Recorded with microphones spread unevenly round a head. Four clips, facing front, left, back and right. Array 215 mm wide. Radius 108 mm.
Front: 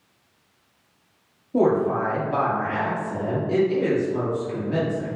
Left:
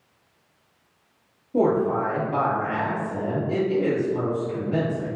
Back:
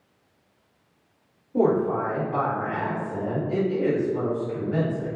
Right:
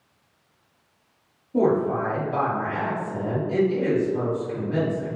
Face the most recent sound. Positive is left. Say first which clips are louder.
# even, front 2 dB
turn(degrees=15)